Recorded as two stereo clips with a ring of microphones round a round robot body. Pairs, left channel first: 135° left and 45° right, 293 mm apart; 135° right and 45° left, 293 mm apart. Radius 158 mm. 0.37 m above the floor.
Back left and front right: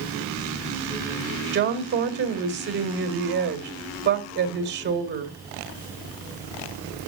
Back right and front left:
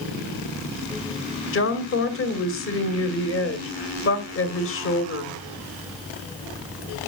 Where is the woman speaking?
95° right, 2 m.